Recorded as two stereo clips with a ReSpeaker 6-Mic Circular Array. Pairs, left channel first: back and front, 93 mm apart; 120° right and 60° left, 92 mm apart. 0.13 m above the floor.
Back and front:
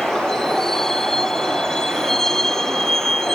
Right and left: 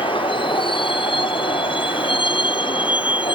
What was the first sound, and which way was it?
A vehicle, 95° right.